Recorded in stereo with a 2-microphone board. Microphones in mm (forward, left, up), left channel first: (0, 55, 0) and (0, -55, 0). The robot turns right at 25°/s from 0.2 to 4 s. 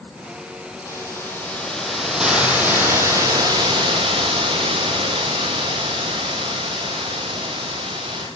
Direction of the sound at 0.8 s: 150° left.